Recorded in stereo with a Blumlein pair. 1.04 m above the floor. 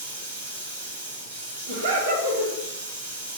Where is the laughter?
55° right, 1.2 m.